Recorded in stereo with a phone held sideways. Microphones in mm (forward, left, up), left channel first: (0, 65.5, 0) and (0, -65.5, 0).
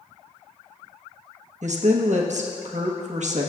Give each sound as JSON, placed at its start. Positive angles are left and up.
{"t": 1.6, "sound": "a woman speaking", "side_deg": -65, "distance_m": 1.2}